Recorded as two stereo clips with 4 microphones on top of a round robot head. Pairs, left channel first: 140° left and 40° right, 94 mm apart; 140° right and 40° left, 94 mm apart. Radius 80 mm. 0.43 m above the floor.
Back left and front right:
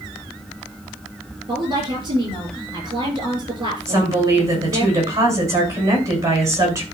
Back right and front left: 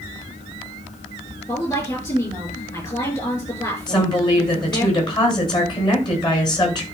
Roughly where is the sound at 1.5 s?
Right.